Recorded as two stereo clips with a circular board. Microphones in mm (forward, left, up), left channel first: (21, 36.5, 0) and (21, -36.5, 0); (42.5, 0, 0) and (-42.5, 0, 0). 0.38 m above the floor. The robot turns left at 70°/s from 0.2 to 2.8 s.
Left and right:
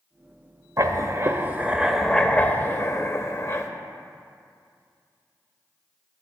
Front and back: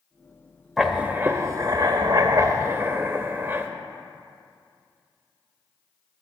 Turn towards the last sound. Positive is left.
turn(degrees=125)